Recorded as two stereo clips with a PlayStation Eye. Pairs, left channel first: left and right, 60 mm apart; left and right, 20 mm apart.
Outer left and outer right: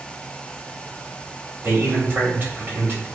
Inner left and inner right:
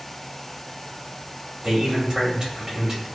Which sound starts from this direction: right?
A man speaking, at 1.6 s.